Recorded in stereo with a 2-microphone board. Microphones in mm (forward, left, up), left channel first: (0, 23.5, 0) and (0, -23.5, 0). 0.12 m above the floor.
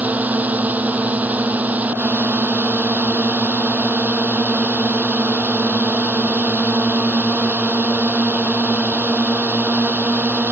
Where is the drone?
35° right (ahead or behind).